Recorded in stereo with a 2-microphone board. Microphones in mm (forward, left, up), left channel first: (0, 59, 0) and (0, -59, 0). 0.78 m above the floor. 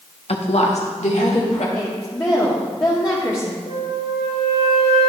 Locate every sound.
0.3 s a woman speaking: 60° left (ahead or behind), 0.9 m; by 1.6 s 80° left, 2.5 m
1.8 s a woman speaking: 30° left (ahead or behind), 1.2 m
3.7 s a flute: 65° right (ahead or behind), 3.5 m